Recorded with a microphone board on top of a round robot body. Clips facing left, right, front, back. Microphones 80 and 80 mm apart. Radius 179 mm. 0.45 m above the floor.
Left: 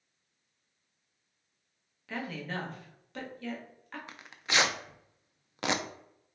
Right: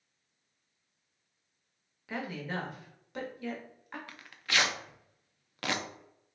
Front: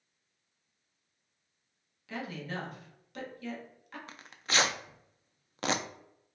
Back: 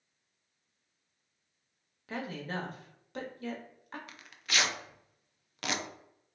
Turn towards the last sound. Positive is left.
turn(degrees=35)